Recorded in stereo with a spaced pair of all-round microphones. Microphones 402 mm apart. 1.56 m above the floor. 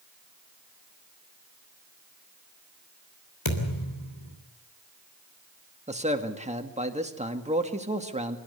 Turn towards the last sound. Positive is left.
turn(degrees=-15)  # may be behind; listen again after turning